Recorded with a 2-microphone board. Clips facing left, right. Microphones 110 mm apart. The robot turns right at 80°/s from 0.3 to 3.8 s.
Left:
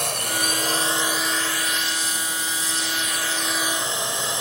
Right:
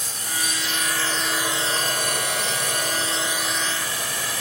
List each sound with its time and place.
0.0 s a drone: 105° left; by 4.4 s 25° left